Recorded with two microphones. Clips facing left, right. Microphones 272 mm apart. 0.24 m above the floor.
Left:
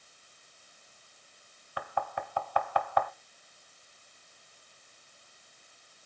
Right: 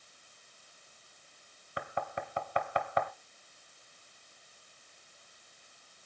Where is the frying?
I don't hear frying.